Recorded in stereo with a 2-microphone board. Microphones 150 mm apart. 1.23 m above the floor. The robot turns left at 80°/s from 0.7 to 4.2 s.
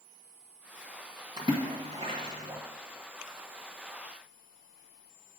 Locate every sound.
1.4 s a splash: 30° right (ahead or behind), 1.4 m; by 2.6 s 20° right (ahead or behind), 1.4 m